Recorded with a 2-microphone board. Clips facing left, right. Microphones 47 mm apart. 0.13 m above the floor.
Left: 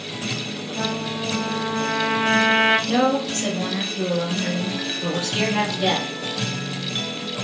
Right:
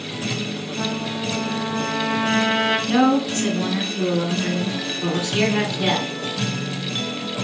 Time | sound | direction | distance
0.8 | a trumpet | 30° left (ahead or behind) | 1.3 m
2.9 | a woman speaking | 30° right (ahead or behind) | 1.4 m